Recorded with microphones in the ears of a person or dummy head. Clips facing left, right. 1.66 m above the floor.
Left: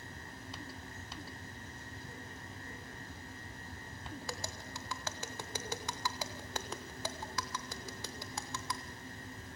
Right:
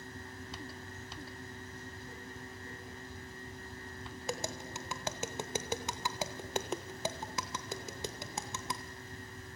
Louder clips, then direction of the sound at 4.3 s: Right 5 dB; 20° right (ahead or behind).